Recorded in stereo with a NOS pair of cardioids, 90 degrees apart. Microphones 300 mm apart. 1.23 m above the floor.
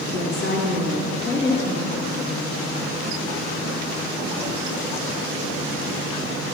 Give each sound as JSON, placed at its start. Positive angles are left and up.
{"t": 0.1, "sound": "a woman speaking", "azimuth_deg": 35, "distance_m": 2.0}